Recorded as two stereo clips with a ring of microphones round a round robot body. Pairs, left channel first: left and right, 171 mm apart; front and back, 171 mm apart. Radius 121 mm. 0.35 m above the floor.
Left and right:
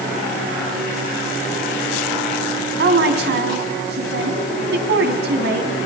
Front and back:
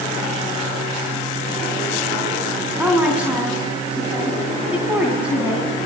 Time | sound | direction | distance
2.8 | a woman speaking | 95° right | 3.5 m